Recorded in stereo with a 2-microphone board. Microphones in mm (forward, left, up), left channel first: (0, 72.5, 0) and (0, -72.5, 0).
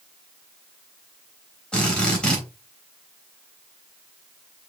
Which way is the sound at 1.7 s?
5° left (ahead or behind).